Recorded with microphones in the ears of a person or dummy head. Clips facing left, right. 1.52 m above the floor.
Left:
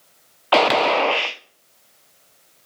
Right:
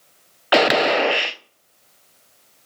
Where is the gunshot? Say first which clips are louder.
Even; 10° right (ahead or behind), 0.8 m.